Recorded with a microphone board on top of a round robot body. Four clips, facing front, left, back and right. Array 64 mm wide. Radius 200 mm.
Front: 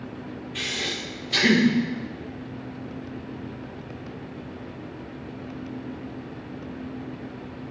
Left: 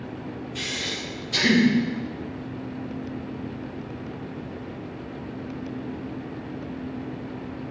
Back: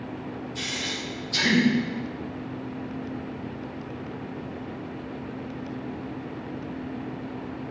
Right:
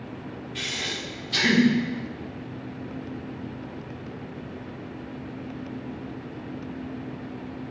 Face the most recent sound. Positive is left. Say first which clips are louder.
# right 1 dB, front 4 dB
turn(degrees=-5)